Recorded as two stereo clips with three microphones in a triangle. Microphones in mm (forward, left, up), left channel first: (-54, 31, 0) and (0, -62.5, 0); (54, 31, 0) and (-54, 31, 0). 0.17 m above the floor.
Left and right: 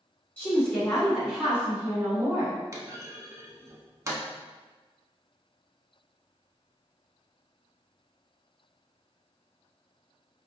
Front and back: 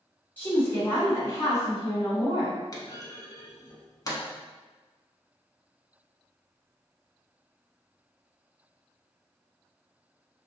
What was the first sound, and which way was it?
A woman speaking, 60° left.